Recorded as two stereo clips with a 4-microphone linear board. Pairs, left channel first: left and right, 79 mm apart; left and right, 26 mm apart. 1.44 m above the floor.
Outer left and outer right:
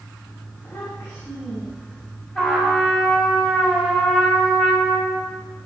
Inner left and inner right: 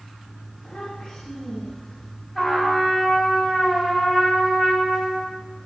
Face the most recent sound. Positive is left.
turn(degrees=15)  # may be behind; listen again after turning